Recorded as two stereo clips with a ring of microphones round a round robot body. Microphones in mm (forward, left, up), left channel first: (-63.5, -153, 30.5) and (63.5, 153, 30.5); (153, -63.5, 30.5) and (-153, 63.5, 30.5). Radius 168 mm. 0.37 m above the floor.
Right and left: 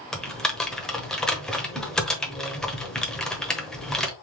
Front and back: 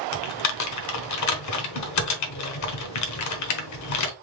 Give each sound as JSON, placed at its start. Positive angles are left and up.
{"t": 0.1, "sound": "typing on a keyboard", "azimuth_deg": -25, "distance_m": 1.1}